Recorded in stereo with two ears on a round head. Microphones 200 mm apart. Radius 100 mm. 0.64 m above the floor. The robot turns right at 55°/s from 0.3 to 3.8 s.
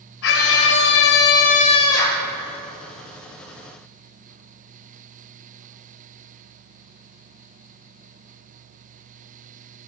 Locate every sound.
0.2 s a scream: 70° left, 3 m; by 2.3 s straight behind, 3 m